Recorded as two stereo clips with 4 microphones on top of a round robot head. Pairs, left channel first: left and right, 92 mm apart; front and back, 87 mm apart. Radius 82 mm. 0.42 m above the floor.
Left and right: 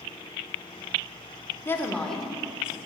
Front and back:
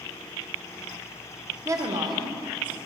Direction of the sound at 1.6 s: 140° left.